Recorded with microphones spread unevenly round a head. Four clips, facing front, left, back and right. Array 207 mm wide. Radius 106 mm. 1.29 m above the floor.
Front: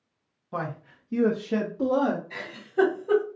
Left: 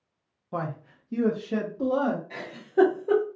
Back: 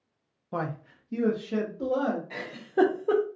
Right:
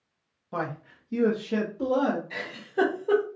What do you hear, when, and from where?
0.5 s a man speaking: 175° left, 0.5 m; by 2.2 s 5° right, 0.9 m
2.3 s a giggle: 160° left, 0.9 m